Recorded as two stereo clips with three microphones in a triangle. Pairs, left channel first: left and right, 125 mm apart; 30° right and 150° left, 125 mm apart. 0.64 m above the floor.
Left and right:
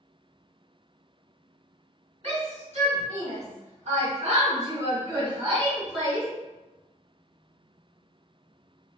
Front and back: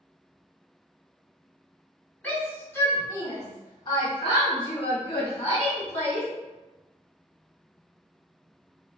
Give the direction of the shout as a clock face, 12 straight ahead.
4 o'clock.